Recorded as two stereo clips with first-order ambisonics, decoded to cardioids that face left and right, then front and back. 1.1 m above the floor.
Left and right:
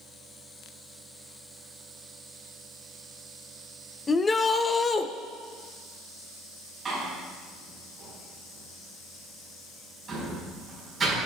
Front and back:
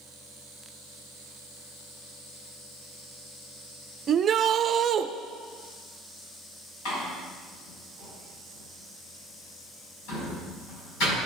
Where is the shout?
150° left, 0.6 m.